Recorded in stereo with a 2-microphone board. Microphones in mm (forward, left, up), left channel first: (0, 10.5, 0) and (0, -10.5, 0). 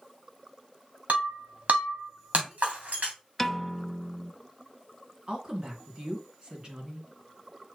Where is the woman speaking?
35° right (ahead or behind), 2.5 m.